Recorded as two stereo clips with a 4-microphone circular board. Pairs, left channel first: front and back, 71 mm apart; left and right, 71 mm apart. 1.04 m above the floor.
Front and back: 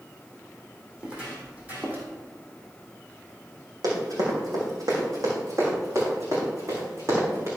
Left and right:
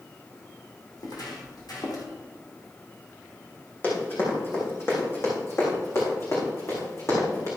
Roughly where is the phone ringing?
I don't hear a phone ringing.